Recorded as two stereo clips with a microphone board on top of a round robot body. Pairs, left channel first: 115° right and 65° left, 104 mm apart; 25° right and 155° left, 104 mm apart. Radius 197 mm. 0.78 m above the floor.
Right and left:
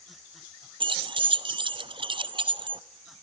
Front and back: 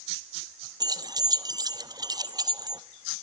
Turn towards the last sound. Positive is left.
turn(degrees=105)